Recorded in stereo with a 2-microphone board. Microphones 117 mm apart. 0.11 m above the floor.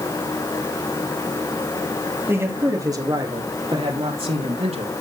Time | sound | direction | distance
2.3 | a man speaking | 20° right (ahead or behind) | 3 m